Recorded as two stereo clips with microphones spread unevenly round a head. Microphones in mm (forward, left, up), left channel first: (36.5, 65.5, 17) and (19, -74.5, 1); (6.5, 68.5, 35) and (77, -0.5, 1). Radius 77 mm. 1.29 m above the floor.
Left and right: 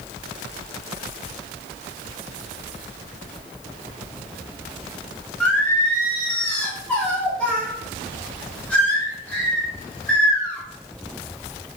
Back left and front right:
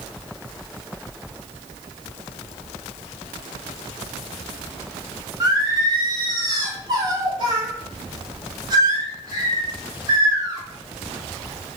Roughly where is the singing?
Ahead.